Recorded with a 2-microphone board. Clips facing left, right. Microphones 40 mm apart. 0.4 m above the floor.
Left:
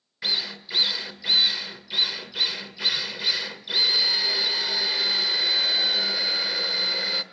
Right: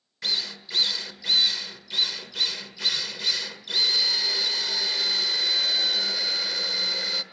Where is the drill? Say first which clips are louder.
Left 1 dB; 15° left (ahead or behind), 1.3 m.